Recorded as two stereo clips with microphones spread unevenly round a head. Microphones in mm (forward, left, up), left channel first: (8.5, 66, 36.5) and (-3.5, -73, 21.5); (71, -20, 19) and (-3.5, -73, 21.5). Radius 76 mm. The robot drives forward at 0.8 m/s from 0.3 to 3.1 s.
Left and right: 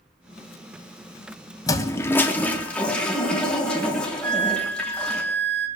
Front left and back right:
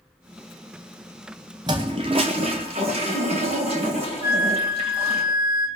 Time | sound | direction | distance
1.7 | a toilet flushing | 150° left | 0.8 m
4.2 | a flute | 105° right | 2.0 m